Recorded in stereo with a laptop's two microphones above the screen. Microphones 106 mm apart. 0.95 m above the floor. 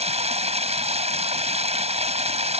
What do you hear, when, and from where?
0.0 s running water: 80° right